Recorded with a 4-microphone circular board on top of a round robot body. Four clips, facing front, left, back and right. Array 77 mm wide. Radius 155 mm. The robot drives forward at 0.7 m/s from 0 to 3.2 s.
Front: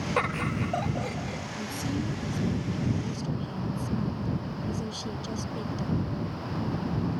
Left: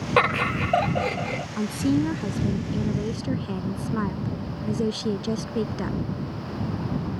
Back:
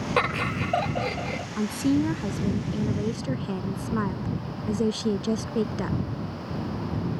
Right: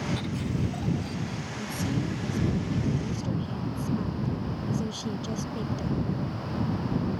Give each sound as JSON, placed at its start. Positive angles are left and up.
{"t": 0.2, "sound": "laughter", "azimuth_deg": 100}
{"t": 1.6, "sound": "a woman speaking", "azimuth_deg": 135}